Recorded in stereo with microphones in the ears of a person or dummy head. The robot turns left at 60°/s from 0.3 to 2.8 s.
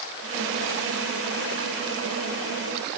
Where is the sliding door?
I don't hear a sliding door.